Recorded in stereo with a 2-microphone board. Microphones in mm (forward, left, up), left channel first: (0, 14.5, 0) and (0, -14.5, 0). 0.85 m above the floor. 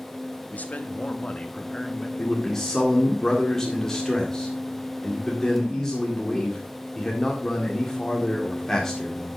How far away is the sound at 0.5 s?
About 1.2 m.